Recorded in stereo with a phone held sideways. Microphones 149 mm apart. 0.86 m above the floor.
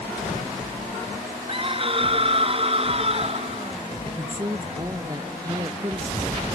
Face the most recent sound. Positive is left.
turn(degrees=-25)  # may be behind; listen again after turning